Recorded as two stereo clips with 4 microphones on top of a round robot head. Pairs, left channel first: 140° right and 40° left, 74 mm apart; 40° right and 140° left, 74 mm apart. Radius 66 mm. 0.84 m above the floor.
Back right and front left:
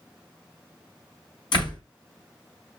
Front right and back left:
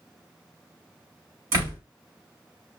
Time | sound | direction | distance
1.5 | a door slam | 165° right | 4.5 m